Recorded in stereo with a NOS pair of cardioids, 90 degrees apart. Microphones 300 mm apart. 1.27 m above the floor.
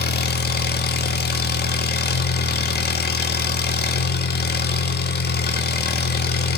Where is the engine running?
30° left, 1.7 m.